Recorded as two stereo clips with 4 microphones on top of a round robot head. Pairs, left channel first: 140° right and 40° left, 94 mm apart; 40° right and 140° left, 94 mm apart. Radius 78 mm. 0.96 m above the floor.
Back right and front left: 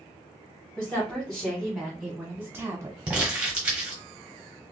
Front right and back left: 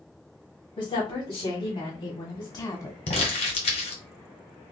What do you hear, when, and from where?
0.8 s a woman speaking: 60° right, 2 m; by 3.0 s 5° left, 1.0 m
3.1 s crumpling: 35° right, 1.0 m